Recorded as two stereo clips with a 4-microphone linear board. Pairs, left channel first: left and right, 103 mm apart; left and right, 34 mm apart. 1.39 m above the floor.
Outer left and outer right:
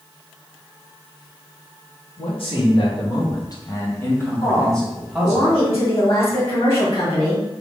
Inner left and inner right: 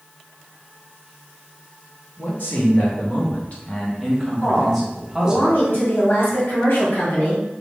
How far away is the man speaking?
About 1.5 m.